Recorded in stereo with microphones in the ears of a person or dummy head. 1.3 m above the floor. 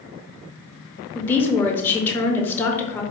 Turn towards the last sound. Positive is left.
turn(degrees=10)  # may be behind; listen again after turning